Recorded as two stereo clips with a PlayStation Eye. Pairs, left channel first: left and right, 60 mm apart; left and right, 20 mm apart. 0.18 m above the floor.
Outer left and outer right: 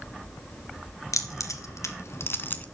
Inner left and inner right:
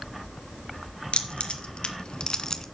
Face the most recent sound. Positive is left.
turn(degrees=30)  # may be behind; listen again after turning